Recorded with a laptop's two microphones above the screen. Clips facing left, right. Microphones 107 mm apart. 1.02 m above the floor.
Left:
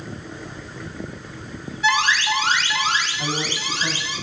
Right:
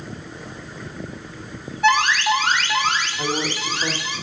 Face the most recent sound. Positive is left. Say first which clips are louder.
# right 2 dB
turn(degrees=-60)  # may be behind; listen again after turning